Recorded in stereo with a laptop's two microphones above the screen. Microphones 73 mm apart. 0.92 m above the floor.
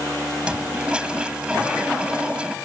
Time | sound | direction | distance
0.4 | a toilet flushing | 15° right (ahead or behind) | ?